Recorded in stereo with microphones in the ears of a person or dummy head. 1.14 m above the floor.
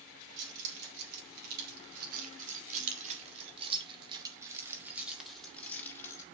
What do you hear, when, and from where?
0.4 s keys jangling: 65° right (ahead or behind), 3.5 m; by 6.3 s 20° left (ahead or behind), 2 m